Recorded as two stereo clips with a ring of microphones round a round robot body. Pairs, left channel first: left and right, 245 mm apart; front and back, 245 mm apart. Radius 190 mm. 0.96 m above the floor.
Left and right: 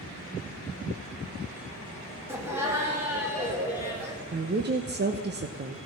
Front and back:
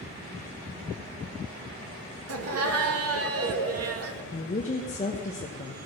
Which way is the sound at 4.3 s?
55° right.